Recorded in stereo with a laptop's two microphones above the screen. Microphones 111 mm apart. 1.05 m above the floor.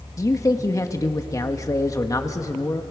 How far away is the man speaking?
About 1.5 m.